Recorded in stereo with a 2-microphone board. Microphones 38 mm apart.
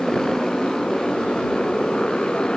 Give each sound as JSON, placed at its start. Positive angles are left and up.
{"t": 0.0, "sound": "a motorcycle", "side_deg": 15}